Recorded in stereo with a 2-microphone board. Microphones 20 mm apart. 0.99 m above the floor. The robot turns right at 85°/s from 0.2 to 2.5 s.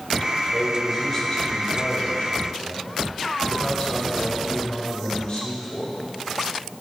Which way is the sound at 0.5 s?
30° right.